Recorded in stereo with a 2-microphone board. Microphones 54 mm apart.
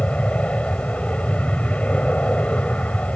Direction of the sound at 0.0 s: 25° left (ahead or behind).